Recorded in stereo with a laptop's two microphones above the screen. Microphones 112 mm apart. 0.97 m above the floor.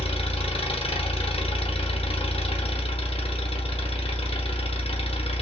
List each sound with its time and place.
0.0 s an engine running: 65° left (ahead or behind), 0.8 m